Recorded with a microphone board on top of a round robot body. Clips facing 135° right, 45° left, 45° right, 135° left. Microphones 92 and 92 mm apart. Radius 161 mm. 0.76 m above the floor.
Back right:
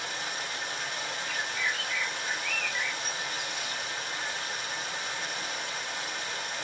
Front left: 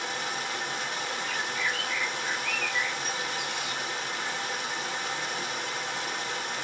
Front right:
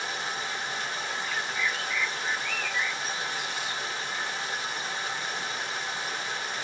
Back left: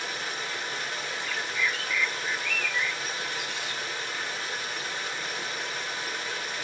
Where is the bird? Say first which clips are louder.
Even, back left 1 dB; 20° left, 2 m.